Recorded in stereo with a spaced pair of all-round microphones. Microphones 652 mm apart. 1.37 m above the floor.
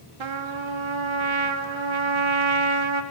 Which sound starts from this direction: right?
A trumpet, at 0.2 s.